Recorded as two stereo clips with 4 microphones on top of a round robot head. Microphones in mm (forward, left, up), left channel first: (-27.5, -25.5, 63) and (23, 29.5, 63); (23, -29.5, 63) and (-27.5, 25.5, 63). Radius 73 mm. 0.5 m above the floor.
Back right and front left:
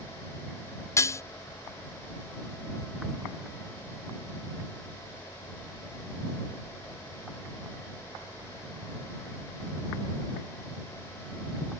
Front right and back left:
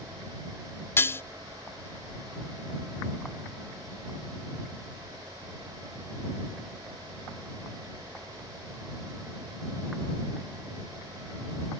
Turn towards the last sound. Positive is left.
turn(degrees=-95)